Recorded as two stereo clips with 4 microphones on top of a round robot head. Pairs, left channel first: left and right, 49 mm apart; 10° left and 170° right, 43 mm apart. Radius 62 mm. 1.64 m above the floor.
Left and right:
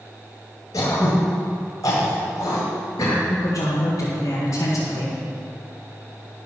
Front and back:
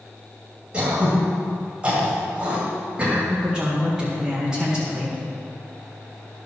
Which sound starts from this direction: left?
A woman speaking, at 3.3 s.